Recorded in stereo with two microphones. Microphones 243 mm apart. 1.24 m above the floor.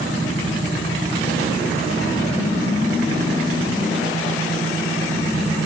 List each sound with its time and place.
Only background noise.